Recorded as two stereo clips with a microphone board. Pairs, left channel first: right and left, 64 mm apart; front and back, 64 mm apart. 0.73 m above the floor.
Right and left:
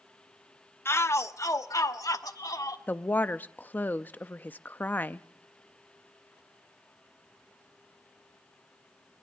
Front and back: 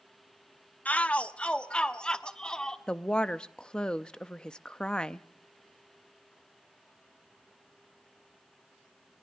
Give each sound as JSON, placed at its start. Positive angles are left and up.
{"t": 0.8, "sound": "a shout", "azimuth_deg": -60, "distance_m": 0.7}
{"t": 2.9, "sound": "a woman speaking", "azimuth_deg": -65, "distance_m": 0.5}